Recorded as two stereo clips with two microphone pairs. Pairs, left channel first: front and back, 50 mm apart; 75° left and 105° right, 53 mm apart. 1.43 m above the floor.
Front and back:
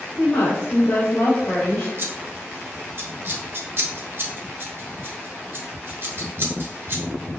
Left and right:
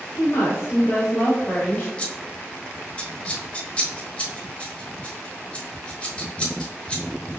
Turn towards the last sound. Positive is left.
turn(degrees=145)